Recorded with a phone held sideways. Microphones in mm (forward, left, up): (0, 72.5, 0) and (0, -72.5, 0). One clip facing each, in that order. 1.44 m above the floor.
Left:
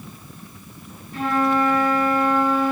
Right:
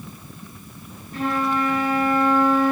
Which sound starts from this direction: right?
A flute, at 1.1 s.